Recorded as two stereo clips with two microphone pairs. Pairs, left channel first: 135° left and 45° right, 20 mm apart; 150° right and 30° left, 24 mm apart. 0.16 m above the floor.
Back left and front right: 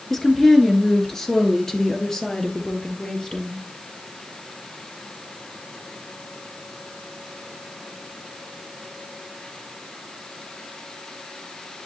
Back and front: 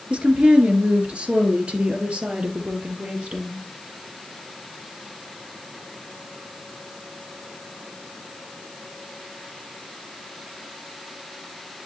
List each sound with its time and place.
0.1 s a woman speaking: 60° left, 2.5 m; by 3.6 s 75° left, 4 m